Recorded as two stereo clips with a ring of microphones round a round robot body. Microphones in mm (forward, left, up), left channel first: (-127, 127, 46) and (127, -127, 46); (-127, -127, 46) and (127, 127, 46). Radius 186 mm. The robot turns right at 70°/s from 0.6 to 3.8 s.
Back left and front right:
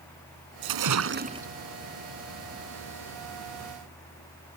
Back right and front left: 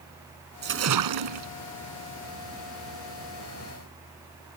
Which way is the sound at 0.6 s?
20° right.